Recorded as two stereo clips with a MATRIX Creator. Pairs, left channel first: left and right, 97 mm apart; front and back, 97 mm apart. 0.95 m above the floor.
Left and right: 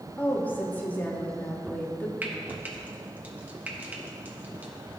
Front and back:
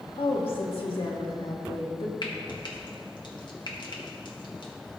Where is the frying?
20° right, 1.4 m.